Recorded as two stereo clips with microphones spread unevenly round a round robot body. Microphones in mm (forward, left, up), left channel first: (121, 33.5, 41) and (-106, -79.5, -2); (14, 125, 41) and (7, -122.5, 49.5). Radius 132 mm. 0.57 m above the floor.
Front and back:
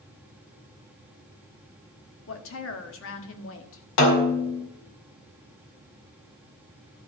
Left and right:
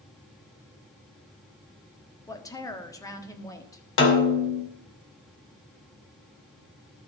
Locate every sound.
2.3 s a woman speaking: 20° left, 1.5 m
4.0 s a snare drum: 55° left, 2.5 m